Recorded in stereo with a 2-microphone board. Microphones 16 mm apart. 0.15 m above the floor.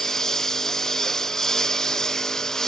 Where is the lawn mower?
20° left (ahead or behind); by 2.7 s 25° left (ahead or behind).